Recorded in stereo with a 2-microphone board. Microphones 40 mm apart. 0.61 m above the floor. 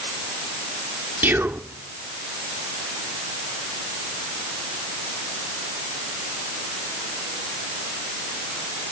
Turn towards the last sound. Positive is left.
turn(degrees=-55)  # may be behind; listen again after turning